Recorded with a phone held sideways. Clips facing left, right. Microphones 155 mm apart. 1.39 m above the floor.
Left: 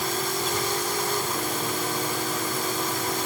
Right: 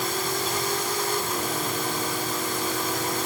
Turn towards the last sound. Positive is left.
No sound to turn to.